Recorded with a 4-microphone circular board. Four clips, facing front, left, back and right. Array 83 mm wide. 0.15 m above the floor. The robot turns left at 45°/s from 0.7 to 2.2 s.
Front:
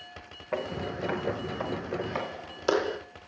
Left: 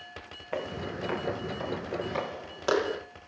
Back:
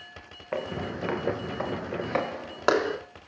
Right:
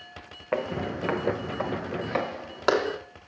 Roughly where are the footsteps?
Right.